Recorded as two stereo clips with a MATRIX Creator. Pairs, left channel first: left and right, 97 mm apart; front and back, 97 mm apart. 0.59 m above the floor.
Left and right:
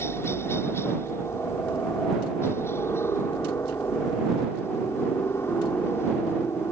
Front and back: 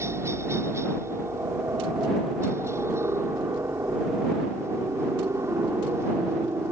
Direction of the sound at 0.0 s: 140° left.